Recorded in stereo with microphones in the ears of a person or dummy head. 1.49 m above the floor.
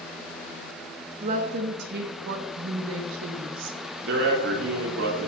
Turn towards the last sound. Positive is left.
turn(degrees=-75)  # may be behind; listen again after turning